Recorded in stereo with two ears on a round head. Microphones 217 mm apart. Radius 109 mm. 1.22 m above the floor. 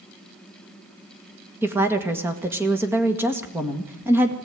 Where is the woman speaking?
10° right (ahead or behind), 1.8 m.